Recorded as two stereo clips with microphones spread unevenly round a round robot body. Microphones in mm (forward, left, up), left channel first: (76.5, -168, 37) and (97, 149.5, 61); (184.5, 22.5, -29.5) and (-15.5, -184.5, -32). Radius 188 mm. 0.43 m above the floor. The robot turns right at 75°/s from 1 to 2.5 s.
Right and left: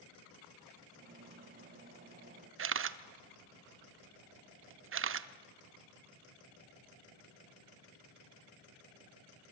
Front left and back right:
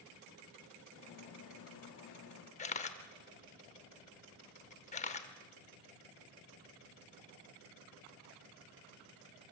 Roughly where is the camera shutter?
Left.